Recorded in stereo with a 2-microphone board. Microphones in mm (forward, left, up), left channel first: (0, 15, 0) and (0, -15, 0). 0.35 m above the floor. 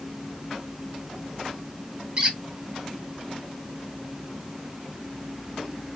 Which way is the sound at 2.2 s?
30° right (ahead or behind).